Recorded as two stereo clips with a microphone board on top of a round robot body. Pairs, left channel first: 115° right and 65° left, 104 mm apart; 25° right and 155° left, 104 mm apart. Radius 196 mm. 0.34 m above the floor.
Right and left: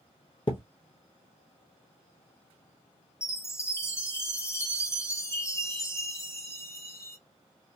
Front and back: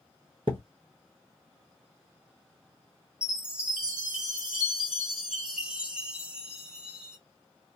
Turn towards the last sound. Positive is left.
turn(degrees=-130)